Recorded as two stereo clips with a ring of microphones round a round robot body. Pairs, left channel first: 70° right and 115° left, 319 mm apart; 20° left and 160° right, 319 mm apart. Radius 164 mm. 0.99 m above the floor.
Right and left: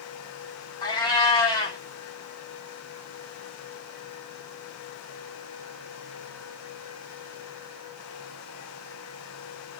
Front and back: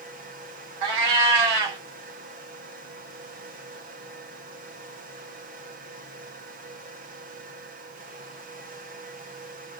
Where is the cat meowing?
145° right, 0.9 m.